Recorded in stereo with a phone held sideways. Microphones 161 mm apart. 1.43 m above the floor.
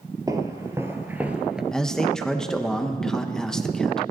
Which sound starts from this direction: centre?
A man speaking, at 1.7 s.